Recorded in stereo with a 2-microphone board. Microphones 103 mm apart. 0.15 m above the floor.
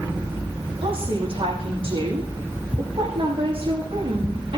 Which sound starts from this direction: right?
A woman speaking, at 0.8 s.